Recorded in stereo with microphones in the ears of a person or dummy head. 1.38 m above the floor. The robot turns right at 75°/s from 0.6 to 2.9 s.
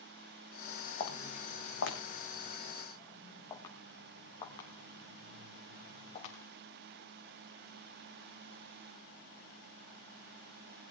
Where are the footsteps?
40° left (ahead or behind), 4.5 m; by 6.3 s 35° left (ahead or behind), 5.5 m.